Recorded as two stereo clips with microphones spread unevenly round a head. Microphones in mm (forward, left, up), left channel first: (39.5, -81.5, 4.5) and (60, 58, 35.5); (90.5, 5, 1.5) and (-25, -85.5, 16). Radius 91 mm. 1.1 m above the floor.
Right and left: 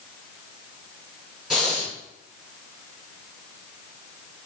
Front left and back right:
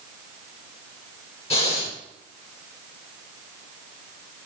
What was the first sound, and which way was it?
Breathing, 10° right.